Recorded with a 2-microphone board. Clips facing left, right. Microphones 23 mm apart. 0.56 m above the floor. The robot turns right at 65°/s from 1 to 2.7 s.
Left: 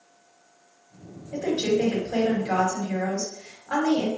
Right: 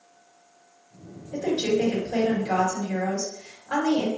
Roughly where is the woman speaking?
Left.